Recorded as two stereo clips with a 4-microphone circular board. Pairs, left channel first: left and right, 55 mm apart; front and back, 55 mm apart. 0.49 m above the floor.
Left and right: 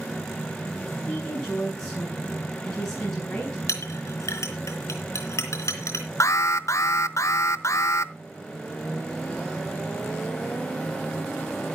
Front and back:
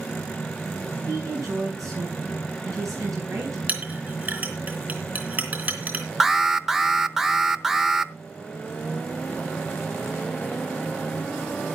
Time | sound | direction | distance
1.1 | a woman speaking | 165° left | 4.5 m
3.7 | a clink | 120° left | 3.5 m
6.2 | an alarm | 100° left | 0.8 m